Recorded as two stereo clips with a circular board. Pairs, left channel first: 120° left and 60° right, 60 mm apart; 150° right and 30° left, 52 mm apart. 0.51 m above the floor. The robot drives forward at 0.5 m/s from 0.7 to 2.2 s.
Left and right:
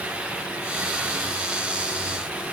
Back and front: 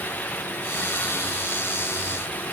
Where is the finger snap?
No finger snap in this recording.